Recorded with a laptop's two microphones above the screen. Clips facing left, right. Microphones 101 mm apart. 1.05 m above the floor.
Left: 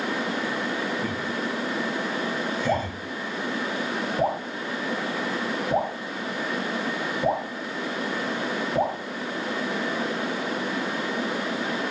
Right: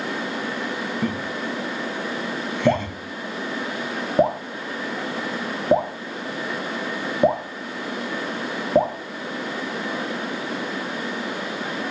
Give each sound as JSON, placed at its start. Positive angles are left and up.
{"t": 1.0, "sound": "laughter", "side_deg": -65, "distance_m": 2.0}
{"t": 2.7, "sound": "dripping", "side_deg": -50, "distance_m": 1.6}